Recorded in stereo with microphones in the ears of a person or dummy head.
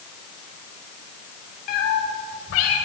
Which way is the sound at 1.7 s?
50° left (ahead or behind).